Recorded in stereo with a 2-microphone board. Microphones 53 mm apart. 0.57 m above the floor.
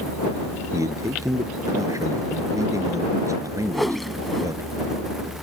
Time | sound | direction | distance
0.7 | a man speaking | 85° right | ?
3.7 | a whoosh | 5° left (ahead or behind) | ?